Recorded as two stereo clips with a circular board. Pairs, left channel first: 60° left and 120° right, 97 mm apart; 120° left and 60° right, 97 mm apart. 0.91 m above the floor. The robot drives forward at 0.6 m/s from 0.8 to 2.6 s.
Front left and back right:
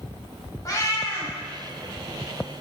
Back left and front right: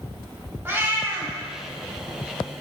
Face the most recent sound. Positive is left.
turn(degrees=20)